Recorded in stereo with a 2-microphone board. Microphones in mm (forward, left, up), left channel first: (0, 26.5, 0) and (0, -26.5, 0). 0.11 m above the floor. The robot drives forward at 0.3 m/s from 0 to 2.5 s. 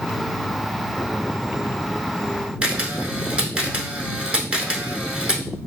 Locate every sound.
2.6 s a camera shutter: 20° right (ahead or behind), 0.7 m